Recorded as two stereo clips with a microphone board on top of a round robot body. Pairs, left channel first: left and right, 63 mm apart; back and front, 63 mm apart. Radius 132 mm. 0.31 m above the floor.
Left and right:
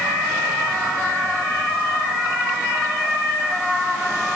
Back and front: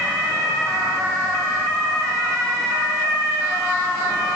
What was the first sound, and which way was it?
Only background noise.